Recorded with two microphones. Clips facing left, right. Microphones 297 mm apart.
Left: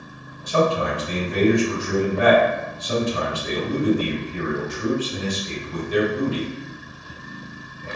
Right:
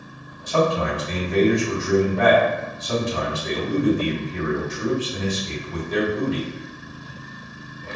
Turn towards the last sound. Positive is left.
turn(degrees=40)  # may be behind; listen again after turning